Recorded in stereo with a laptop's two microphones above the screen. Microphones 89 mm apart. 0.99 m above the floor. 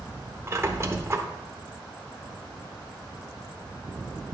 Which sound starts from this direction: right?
A squeak, at 0.5 s.